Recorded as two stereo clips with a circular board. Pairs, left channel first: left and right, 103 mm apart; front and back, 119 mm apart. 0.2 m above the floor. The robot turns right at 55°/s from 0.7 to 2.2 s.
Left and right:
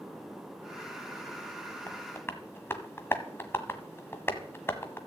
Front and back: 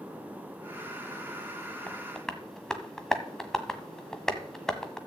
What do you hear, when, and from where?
1.9 s tapping: 60° left, 1.4 m; by 5.0 s 80° left, 1.4 m